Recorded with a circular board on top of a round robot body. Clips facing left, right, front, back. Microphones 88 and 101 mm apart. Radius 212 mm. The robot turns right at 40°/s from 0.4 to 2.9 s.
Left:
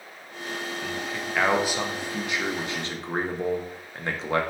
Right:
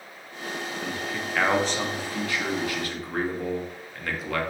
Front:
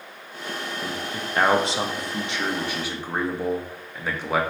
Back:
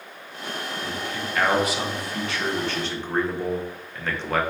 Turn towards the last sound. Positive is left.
turn(degrees=70)